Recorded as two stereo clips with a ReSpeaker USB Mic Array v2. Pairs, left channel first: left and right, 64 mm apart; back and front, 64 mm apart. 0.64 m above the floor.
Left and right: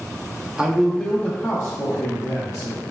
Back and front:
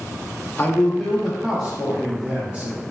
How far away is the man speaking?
About 0.6 m.